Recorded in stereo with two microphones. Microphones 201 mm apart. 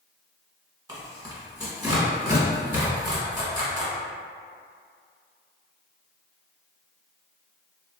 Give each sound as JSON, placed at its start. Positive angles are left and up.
{"t": 0.9, "sound": "tearing paper", "side_deg": -20, "distance_m": 1.0}